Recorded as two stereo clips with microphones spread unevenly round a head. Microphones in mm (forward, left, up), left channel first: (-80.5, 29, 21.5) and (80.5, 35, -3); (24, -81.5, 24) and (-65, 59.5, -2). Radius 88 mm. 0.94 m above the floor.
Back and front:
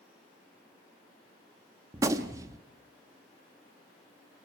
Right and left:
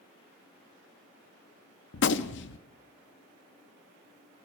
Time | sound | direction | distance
1.9 | a gunshot | 70° right | 0.7 m